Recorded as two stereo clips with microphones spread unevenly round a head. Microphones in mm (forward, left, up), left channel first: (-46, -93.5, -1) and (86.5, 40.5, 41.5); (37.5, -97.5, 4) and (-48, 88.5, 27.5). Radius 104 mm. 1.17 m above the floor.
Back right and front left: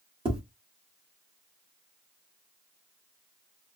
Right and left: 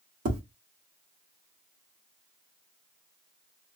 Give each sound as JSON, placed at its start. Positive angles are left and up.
{"t": 0.2, "sound": "tapping", "azimuth_deg": 105, "distance_m": 1.2}